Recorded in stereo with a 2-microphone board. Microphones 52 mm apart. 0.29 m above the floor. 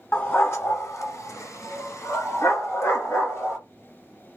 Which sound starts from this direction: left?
A dog barking, at 0.1 s.